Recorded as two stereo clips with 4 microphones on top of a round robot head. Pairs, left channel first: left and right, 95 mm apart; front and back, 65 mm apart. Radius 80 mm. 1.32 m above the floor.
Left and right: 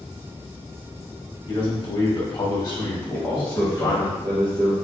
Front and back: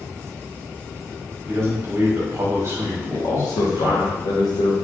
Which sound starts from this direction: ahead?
A man speaking, at 3.1 s.